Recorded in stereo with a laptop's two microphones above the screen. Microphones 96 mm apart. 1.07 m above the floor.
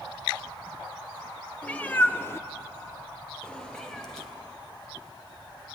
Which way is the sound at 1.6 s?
15° left (ahead or behind).